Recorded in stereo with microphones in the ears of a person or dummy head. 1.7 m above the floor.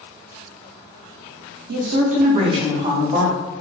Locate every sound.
1.7 s a woman speaking: 60° right (ahead or behind), 0.6 m; by 3.4 s 15° right (ahead or behind), 1.2 m